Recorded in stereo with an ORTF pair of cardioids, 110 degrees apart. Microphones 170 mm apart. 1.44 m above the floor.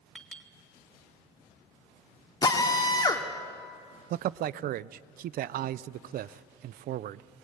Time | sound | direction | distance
0.1 | a clink | 5° left | 3 m
2.4 | a drill | 25° left | 2.5 m
4.1 | a man speaking | 60° right | 0.6 m